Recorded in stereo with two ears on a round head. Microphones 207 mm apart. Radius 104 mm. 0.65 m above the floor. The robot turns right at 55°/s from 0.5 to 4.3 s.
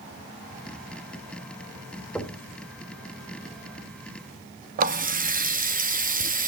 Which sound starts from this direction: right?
A running tap, at 4.8 s.